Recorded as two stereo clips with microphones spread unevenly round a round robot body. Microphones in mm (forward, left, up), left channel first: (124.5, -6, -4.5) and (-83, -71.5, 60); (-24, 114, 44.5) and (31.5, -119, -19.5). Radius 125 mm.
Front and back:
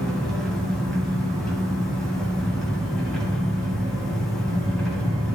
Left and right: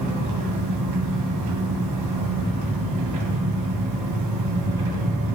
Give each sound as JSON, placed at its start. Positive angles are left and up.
{"t": 0.0, "sound": "an engine running", "azimuth_deg": -70, "distance_m": 1.9}